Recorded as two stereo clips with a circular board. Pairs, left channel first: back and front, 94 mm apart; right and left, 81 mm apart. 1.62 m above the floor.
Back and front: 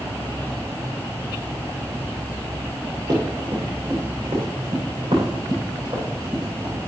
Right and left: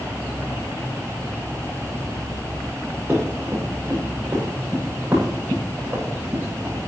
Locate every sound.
3.1 s running footsteps: 25° left, 7 m; by 6.8 s 15° left, 9 m